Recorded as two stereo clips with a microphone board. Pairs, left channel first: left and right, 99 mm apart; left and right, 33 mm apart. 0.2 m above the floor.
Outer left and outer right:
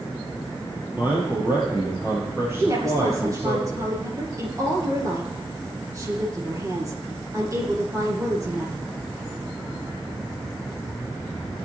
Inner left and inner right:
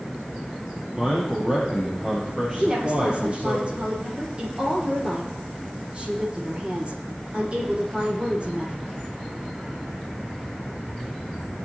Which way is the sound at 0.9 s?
20° right (ahead or behind).